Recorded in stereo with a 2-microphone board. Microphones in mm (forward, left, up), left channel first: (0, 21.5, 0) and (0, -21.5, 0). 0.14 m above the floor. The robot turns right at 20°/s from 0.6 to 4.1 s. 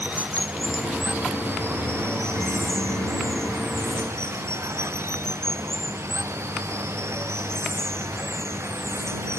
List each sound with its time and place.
0.0 s running water: 145° right; by 9.4 s 75° right